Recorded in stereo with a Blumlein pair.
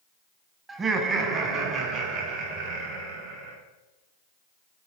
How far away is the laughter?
About 1.5 m.